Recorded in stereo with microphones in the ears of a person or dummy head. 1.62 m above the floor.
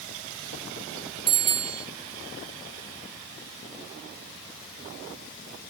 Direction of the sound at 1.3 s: 25° right (ahead or behind).